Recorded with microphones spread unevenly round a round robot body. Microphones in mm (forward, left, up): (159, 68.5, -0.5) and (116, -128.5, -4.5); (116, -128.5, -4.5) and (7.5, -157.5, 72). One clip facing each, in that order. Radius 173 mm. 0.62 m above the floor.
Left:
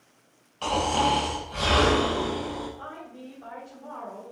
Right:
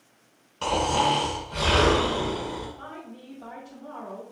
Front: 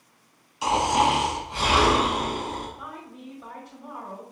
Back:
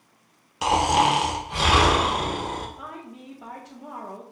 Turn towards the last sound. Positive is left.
turn(degrees=-150)